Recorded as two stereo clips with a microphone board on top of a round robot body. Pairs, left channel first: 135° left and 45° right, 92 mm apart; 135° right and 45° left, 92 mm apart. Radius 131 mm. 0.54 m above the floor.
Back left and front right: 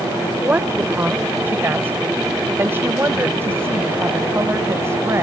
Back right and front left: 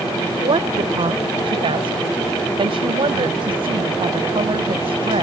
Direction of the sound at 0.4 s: 25° left.